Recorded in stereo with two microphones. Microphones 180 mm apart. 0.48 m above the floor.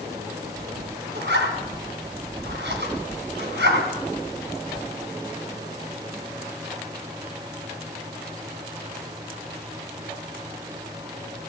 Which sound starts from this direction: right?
A zipper, at 1.1 s.